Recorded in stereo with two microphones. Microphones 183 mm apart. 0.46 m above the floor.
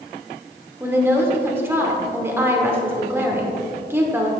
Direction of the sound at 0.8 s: 15° right (ahead or behind).